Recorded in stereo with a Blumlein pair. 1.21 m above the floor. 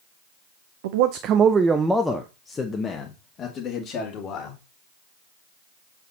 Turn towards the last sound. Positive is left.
turn(degrees=35)